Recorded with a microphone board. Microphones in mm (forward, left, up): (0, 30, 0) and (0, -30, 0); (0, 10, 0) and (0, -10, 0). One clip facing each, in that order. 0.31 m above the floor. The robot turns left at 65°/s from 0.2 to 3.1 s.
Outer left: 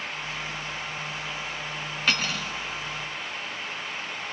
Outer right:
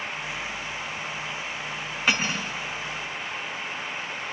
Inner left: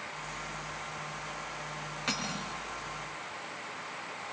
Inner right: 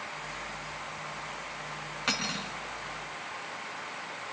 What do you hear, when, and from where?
2.1 s cutlery clinking: 15° right (ahead or behind), 1.7 m; by 2.5 s 45° right (ahead or behind), 1.7 m